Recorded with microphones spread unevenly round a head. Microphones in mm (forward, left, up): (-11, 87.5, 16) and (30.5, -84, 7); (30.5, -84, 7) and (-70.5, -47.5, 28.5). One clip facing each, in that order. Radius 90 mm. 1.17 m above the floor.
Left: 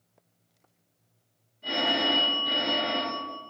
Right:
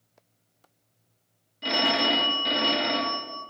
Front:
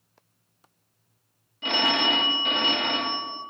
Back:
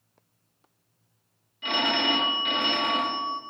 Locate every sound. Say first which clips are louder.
1.6 s a phone ringing: right 2 dB, front 1 dB; 80° right, 0.8 m